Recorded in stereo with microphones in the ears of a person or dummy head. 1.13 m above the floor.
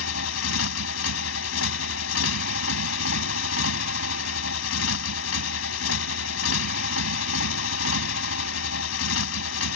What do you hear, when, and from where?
0.0 s a motorcycle: 80° left